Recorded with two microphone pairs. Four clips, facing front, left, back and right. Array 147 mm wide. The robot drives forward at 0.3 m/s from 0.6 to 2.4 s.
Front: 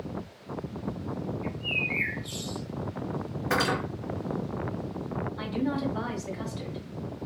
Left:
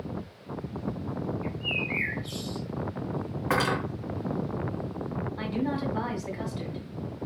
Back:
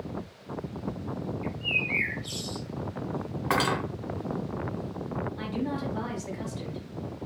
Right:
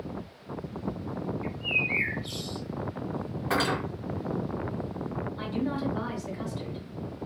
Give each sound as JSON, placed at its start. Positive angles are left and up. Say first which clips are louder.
{"t": 1.4, "sound": "a bird", "louder": "even, even", "azimuth_deg": -95, "distance_m": 1.0}
{"t": 3.5, "sound": "cutlery clinking", "louder": "left 1 dB, back 1 dB", "azimuth_deg": 160, "distance_m": 1.5}
{"t": 5.4, "sound": "a woman speaking", "louder": "left 1 dB, front 5 dB", "azimuth_deg": 90, "distance_m": 1.7}